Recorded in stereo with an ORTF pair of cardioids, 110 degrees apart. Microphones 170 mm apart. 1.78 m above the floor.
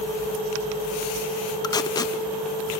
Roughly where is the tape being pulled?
Ahead left.